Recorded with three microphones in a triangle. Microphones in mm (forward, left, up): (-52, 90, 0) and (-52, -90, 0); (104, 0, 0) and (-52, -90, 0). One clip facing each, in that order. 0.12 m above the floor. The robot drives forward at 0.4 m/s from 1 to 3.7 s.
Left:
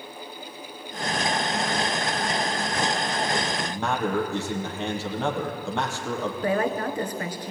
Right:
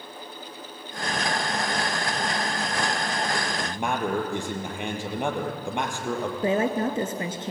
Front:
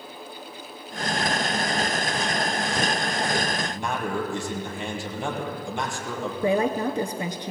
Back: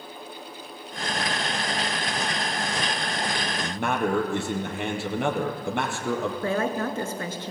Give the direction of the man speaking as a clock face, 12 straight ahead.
5 o'clock.